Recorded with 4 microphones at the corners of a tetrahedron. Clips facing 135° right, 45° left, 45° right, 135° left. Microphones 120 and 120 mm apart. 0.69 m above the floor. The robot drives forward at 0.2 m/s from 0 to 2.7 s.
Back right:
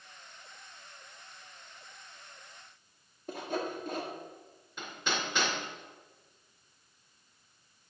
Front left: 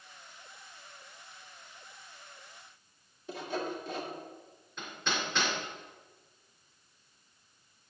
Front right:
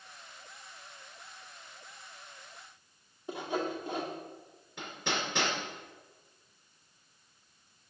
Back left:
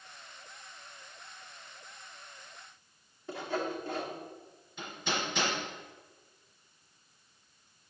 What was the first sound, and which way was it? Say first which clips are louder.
Sawing: back right 1 dB, front right 1 dB; 115° right.